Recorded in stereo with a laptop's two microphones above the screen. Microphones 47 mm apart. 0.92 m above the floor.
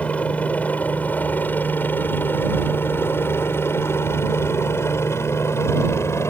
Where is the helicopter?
30° left (ahead or behind); by 6.3 s 70° left (ahead or behind).